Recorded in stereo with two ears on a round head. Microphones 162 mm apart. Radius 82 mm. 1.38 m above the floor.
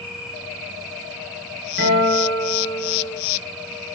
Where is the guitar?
75° right (ahead or behind), 5 m.